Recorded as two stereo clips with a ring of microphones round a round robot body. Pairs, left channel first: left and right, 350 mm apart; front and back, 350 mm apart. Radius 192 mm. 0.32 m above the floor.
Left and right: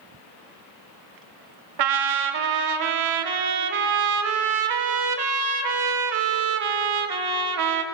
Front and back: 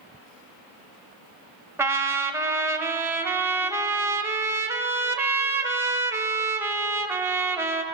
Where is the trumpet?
95° right, 0.7 m.